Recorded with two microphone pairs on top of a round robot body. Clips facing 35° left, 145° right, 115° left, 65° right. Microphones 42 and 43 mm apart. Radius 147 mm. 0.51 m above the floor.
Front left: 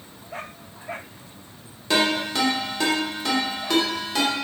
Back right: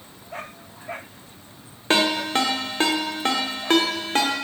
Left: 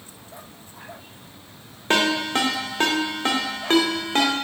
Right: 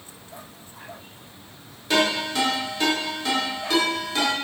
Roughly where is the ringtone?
Behind.